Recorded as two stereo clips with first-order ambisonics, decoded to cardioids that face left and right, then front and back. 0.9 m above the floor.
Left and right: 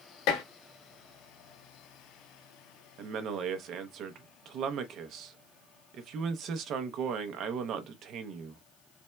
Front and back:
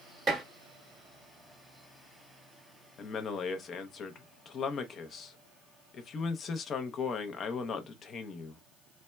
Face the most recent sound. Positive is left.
turn(degrees=-55)